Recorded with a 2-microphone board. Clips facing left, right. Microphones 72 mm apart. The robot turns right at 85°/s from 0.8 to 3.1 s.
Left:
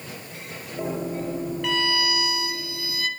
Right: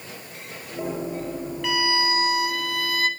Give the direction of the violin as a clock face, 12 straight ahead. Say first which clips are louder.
Right 3 dB; 6 o'clock.